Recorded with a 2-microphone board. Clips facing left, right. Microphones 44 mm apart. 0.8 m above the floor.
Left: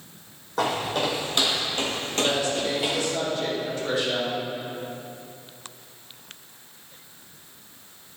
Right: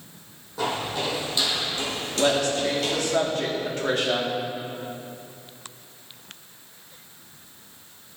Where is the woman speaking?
60° right (ahead or behind), 1.9 m.